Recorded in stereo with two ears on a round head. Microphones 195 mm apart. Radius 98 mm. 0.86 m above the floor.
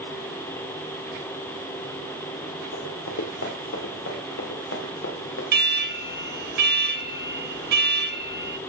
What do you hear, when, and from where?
2.7 s running footsteps: 60° left (ahead or behind), 3.5 m; by 5.4 s 65° left (ahead or behind), 5 m
5.5 s an alarm: 50° right (ahead or behind), 1.5 m